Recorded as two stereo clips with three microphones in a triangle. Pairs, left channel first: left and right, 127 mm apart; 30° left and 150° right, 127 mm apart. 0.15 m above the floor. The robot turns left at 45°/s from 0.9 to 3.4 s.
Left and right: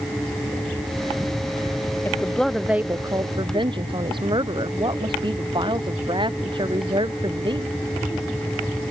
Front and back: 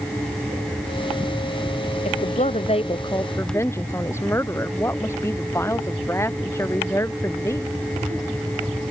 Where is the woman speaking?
20° left; by 7.8 s 40° right.